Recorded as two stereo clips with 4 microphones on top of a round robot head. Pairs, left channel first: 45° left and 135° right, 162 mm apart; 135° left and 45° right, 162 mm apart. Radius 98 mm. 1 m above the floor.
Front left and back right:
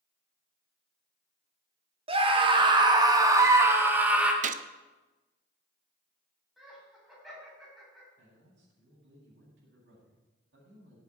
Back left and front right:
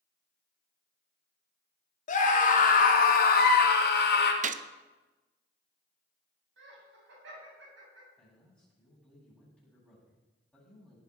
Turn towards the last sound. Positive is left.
turn(degrees=-145)